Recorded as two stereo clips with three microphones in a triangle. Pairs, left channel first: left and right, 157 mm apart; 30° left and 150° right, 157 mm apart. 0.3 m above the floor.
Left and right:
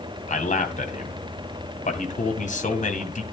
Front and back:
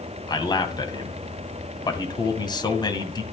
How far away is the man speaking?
About 2 m.